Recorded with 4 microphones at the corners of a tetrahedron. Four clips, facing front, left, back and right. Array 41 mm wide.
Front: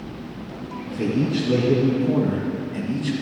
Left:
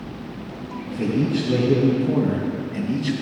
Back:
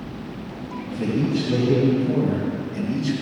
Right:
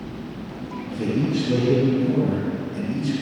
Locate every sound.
0.9 s a man speaking: 10° left, 3 m; by 3.1 s 70° left, 1.8 m